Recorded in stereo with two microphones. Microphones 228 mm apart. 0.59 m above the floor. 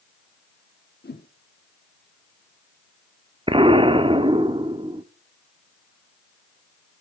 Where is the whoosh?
45° left (ahead or behind), 0.9 m.